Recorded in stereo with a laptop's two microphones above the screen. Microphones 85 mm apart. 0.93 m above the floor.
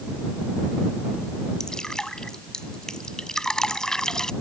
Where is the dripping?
5° left (ahead or behind).